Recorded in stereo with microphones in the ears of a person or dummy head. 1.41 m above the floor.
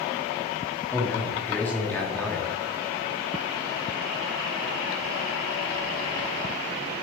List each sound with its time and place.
0.9 s a man speaking: 5° left (ahead or behind), 0.5 m